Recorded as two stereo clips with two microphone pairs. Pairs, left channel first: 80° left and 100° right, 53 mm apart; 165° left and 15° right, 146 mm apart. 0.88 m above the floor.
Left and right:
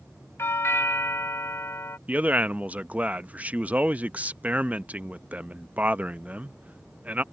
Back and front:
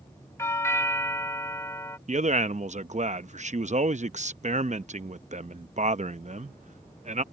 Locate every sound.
0.4 s a doorbell: 95° left
2.1 s a man speaking: 40° right